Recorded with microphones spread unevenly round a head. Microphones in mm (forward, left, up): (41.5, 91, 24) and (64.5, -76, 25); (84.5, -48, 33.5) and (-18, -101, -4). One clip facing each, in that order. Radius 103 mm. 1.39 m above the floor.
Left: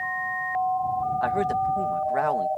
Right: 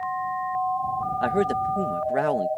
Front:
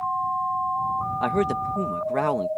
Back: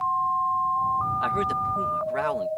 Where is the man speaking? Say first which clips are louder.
Right 4 dB, front 3 dB; 20° right.